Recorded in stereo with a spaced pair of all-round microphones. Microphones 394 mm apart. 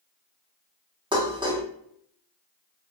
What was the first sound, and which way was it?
Dishes clattering, 10° right (ahead or behind).